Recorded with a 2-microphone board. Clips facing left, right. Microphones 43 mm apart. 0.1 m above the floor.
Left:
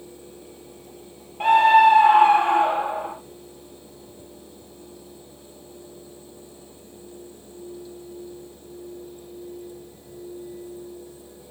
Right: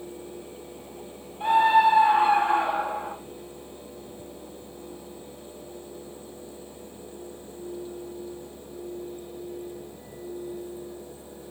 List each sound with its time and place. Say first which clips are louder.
1.4 s a scream: left 5 dB; 60° left (ahead or behind), 3 m; by 3.1 s 55° left (ahead or behind), 4 m